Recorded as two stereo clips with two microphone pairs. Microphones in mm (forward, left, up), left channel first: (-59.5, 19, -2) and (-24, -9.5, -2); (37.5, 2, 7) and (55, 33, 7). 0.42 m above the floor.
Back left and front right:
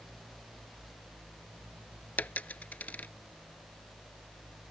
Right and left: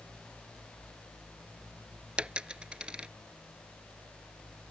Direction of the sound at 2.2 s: 105° left.